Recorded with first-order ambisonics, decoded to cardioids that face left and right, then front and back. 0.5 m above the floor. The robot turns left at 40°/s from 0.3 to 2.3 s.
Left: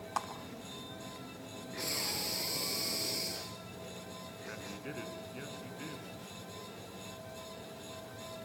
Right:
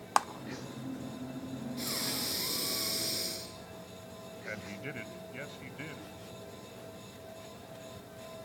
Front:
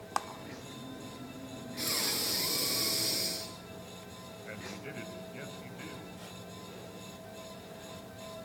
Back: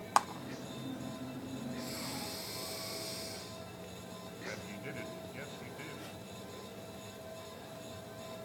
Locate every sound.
0.2 s a clap: 115° right, 0.8 m
1.8 s breathing: 25° right, 5 m; by 3.8 s 45° right, 5 m
4.5 s a man speaking: 95° right, 3.5 m